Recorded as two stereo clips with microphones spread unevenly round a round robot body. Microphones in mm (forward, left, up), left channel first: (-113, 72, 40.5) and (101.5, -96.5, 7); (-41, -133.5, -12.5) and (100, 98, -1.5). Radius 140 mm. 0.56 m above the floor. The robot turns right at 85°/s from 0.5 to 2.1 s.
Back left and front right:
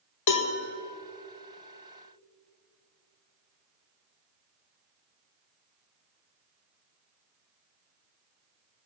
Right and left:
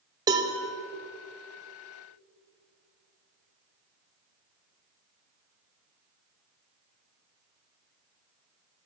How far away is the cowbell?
About 1.8 m.